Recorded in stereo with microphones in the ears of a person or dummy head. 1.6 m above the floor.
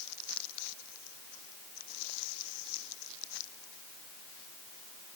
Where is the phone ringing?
No phone ringing in this recording.